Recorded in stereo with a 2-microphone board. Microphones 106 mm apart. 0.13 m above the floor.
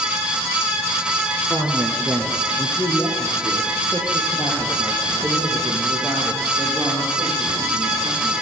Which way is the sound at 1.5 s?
5° right (ahead or behind).